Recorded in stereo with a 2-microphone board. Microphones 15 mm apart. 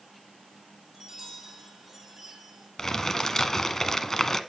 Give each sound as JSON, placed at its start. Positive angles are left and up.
{"t": 0.9, "sound": "a chime", "side_deg": -20, "distance_m": 6.5}
{"t": 2.8, "sound": "crumpling", "side_deg": 35, "distance_m": 1.0}